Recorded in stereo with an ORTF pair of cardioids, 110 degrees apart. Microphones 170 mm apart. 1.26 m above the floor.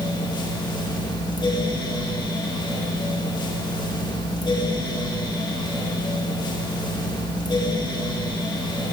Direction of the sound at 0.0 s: 30° left.